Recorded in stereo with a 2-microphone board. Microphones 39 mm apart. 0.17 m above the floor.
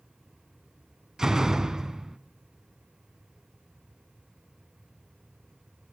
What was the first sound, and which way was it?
A door slam, 15° right (ahead or behind).